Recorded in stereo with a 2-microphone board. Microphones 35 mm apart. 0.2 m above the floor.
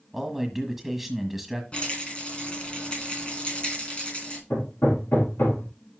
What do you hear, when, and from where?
0.1 s a man speaking: 5° right (ahead or behind), 1.3 m
1.7 s a rattle: 35° left (ahead or behind), 2.5 m
4.5 s hammering: 80° left, 3.5 m